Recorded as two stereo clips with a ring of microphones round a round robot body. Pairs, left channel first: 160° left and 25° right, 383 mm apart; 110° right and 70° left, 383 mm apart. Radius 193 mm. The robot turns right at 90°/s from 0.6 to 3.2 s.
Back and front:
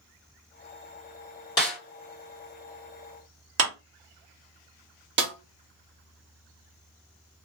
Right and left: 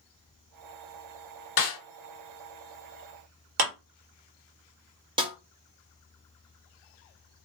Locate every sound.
1.6 s a snare drum: 125° right, 1.9 m; by 1.8 s 105° right, 1.9 m
3.6 s a clap: 35° left, 1.3 m
5.2 s a snare drum: straight ahead, 0.7 m